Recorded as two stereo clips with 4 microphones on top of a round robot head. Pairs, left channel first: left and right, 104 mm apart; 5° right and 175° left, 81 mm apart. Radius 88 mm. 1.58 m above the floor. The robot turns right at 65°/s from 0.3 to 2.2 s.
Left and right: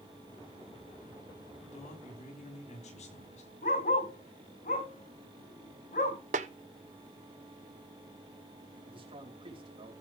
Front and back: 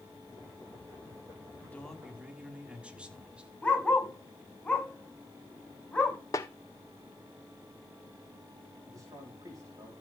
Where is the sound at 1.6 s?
55° left, 5 m; by 3.5 s 95° left, 5 m.